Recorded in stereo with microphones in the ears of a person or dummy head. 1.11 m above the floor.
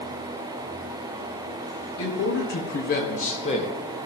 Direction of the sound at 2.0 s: 60° left (ahead or behind).